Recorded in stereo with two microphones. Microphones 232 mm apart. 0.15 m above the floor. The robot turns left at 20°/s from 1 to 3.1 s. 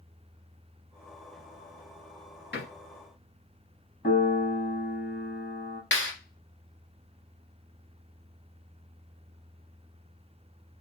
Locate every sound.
2.5 s a door slam: 50° left (ahead or behind), 1.8 m
4.0 s a piano: 40° left (ahead or behind), 2 m
5.9 s a clap: 55° left (ahead or behind), 2.0 m